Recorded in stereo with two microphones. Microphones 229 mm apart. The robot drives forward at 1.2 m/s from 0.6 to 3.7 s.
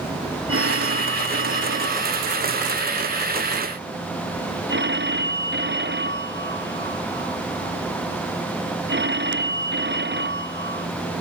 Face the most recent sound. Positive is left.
turn(degrees=-50)  # may be behind; listen again after turning